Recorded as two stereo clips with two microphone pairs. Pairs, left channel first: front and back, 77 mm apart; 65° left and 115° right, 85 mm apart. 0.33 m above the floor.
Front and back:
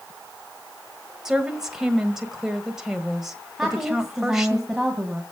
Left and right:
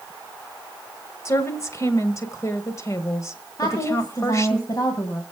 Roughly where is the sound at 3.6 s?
Left.